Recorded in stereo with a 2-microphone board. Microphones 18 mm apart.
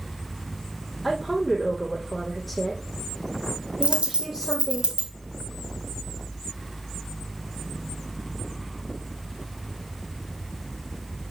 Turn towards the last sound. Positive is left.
turn(degrees=-75)  # may be behind; listen again after turning